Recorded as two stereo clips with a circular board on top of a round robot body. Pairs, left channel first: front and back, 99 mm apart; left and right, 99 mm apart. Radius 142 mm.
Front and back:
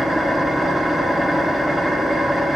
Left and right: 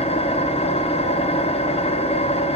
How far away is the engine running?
About 1.0 m.